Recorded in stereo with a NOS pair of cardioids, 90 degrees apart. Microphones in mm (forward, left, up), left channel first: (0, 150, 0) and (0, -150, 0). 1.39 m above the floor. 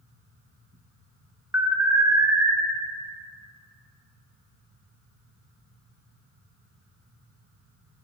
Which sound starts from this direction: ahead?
An alarm, at 1.5 s.